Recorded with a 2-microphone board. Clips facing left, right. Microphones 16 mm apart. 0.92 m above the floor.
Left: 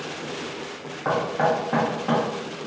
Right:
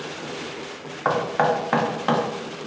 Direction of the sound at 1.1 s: 60° right (ahead or behind).